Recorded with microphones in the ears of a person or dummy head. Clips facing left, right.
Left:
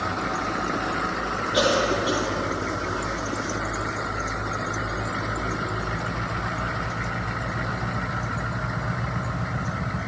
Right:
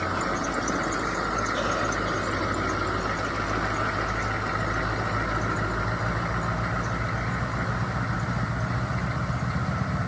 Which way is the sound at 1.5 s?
85° left.